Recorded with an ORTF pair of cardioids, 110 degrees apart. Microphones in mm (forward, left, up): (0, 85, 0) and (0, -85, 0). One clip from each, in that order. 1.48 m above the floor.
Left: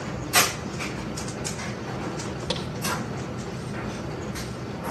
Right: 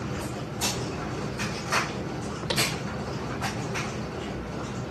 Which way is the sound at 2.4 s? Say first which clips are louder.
Right 6 dB; 5° left.